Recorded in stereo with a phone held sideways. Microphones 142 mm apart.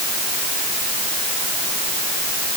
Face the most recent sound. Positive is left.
No sound to turn to.